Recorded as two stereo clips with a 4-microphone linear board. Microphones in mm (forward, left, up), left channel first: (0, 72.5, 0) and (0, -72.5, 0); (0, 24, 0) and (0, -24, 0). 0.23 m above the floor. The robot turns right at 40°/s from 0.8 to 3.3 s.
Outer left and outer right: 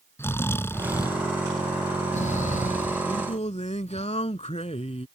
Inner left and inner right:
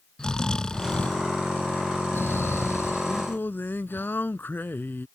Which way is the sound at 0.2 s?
15° left (ahead or behind).